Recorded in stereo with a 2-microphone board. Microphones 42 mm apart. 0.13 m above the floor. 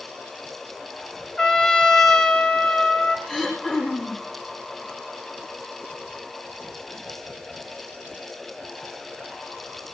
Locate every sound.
1.4 s a trumpet: 10° left (ahead or behind), 1.5 m
3.3 s throat clearing: centre (ahead or behind), 6 m